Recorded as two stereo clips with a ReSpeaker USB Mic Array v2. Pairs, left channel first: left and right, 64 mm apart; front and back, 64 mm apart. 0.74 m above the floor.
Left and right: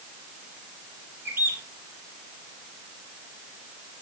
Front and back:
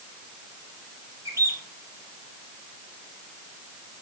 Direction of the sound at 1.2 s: 145° right.